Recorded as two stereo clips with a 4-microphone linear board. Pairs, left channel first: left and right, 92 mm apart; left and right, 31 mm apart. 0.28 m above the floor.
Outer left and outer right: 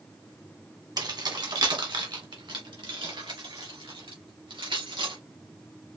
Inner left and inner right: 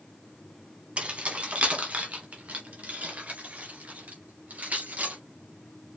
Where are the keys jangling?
45° right (ahead or behind), 1.4 m; by 5.2 s 70° right (ahead or behind), 3.5 m.